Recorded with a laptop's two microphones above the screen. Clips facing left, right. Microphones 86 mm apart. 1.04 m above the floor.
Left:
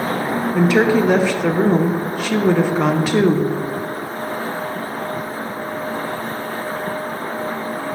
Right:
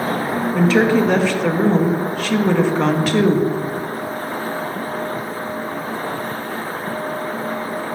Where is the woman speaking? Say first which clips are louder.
Even; 10° left (ahead or behind), 0.5 m.